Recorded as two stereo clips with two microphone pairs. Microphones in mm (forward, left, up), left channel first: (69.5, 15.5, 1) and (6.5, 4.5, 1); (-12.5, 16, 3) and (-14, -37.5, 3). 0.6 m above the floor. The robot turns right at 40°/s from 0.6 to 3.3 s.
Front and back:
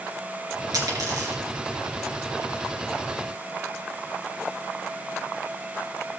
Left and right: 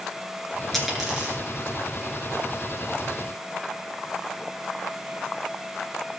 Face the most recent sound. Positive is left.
turn(degrees=-85)